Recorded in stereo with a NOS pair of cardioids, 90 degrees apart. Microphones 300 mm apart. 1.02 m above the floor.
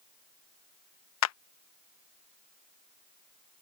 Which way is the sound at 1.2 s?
60° left.